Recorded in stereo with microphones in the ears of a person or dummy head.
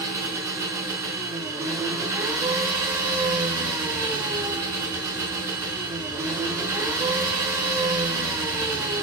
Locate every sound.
0.0 s an engine running: 15° right (ahead or behind), 0.8 m